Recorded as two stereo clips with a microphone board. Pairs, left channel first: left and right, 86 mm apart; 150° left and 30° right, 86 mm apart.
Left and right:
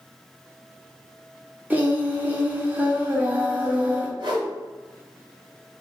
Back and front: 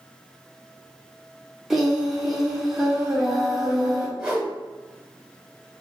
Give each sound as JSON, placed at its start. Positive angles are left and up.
{"t": 1.7, "sound": "singing", "azimuth_deg": -105, "distance_m": 0.8}
{"t": 4.2, "sound": "a whoosh", "azimuth_deg": -115, "distance_m": 1.1}